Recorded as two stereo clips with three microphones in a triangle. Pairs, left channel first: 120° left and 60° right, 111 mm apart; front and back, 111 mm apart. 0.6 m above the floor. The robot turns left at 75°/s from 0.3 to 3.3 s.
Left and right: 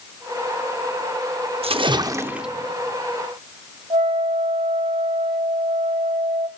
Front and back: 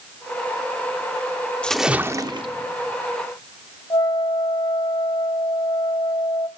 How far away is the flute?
About 1.3 m.